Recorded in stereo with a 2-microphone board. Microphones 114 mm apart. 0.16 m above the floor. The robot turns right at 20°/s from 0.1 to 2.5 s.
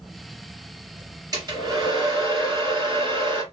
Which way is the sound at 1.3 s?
30° right (ahead or behind).